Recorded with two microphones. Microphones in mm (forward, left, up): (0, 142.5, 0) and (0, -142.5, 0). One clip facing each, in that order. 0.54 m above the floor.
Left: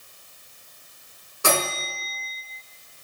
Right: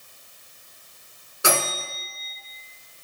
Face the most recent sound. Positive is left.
turn(degrees=-10)  # may be behind; listen again after turning